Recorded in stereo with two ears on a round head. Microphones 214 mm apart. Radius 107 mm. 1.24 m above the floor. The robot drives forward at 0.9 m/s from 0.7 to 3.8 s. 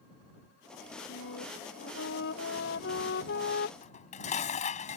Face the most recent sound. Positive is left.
turn(degrees=30)  # may be behind; listen again after turning